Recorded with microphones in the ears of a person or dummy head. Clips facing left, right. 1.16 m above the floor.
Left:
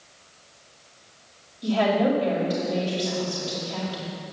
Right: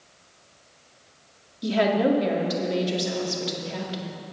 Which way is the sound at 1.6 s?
20° right (ahead or behind).